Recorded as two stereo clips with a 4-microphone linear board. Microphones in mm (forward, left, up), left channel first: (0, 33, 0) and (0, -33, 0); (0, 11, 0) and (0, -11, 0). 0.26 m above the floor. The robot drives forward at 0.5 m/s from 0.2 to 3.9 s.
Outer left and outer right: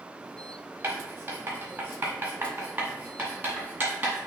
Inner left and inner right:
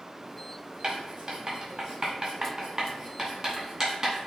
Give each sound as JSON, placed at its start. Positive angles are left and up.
{"t": 0.8, "sound": "writing", "side_deg": -35, "distance_m": 1.6}